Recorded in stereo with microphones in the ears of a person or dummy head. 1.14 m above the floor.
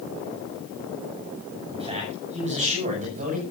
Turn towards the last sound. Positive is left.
turn(degrees=-40)  # may be behind; listen again after turning